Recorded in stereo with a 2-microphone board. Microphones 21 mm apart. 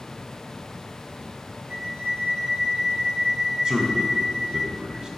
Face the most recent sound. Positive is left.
turn(degrees=-40)  # may be behind; listen again after turning